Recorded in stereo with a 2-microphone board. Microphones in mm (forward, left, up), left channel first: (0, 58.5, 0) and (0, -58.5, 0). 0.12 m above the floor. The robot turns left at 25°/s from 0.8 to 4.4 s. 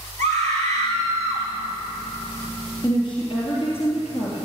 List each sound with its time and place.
0.2 s a scream: 75° right (ahead or behind), 5.5 m; by 1.5 s 60° right (ahead or behind), 5.5 m
2.8 s a woman speaking: 135° left, 2.5 m; by 4.4 s 95° left, 2.5 m